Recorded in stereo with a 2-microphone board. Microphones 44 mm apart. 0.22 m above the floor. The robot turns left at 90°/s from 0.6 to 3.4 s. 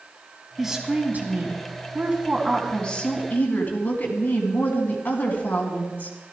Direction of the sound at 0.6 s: 10° right.